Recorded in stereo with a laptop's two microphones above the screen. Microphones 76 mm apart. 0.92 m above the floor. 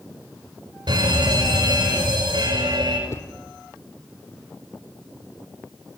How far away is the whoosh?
About 0.8 m.